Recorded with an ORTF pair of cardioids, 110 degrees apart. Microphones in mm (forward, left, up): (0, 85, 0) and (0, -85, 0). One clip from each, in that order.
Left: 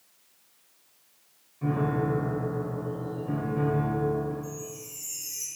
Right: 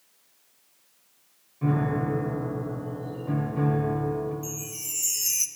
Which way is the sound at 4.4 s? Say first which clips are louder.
Right 3 dB; 70° right.